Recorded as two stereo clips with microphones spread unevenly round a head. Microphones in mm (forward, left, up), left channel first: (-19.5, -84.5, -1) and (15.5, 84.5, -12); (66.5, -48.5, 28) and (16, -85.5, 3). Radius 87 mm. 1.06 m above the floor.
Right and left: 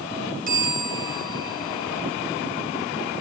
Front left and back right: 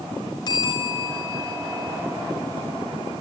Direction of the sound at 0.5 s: 30° left.